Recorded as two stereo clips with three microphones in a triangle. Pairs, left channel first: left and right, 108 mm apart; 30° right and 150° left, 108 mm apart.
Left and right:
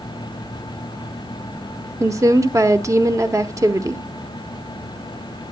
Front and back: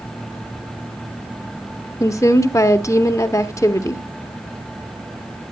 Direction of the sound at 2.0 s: 60° right.